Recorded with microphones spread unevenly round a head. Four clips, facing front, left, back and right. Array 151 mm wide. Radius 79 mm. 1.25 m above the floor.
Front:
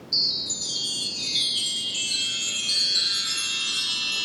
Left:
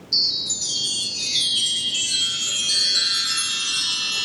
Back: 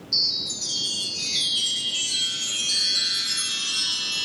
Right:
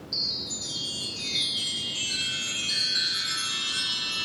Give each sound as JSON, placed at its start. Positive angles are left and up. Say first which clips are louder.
{"t": 0.1, "sound": "a chime", "louder": "left 6 dB, even", "azimuth_deg": 85, "distance_m": 2.0}